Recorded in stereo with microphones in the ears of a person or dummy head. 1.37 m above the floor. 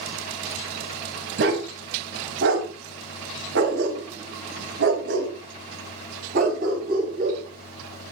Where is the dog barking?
75° right (ahead or behind), 4 m; by 8.1 s 45° right (ahead or behind), 5.5 m.